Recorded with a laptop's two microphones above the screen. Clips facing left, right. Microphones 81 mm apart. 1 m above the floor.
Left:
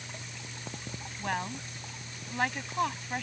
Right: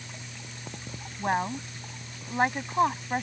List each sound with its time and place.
1.2 s a woman speaking: 25° right (ahead or behind)